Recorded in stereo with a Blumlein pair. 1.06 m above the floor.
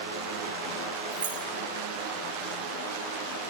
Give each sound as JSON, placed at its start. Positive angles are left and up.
{"t": 1.1, "sound": "keys jangling", "azimuth_deg": -65, "distance_m": 3.0}